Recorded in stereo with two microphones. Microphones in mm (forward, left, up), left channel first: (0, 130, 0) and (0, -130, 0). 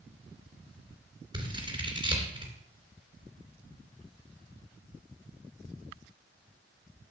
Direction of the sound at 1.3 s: 20° right (ahead or behind).